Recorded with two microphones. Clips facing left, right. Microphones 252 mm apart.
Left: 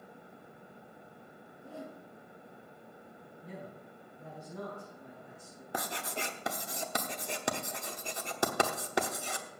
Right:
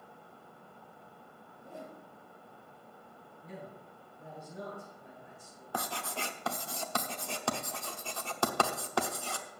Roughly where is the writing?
Centre.